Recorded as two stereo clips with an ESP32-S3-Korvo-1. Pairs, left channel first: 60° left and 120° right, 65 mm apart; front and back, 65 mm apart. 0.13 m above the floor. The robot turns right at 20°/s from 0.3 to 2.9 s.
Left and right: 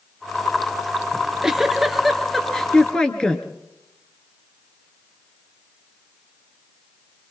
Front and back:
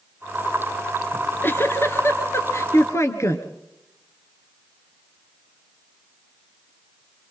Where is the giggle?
45° right, 2.5 m; by 3.5 s 10° right, 2.5 m.